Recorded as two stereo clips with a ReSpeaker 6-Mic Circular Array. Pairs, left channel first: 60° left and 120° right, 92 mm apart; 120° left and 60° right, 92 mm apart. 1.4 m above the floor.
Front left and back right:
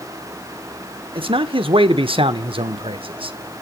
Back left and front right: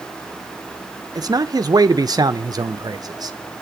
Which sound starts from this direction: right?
A man speaking, at 1.1 s.